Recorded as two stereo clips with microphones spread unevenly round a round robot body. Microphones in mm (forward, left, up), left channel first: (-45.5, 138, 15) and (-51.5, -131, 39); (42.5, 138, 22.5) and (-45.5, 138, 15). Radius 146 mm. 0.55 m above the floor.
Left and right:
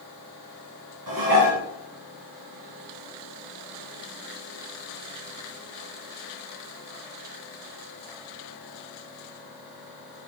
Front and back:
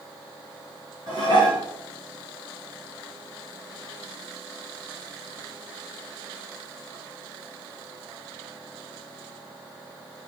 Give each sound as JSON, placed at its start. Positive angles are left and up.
{"t": 1.1, "sound": "dishes clattering", "azimuth_deg": -70, "distance_m": 3.0}